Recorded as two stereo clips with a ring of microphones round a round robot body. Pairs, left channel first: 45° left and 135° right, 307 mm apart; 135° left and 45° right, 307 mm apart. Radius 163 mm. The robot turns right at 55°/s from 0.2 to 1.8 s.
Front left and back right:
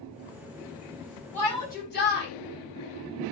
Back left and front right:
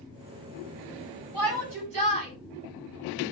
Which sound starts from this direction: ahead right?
A shout, at 1.3 s.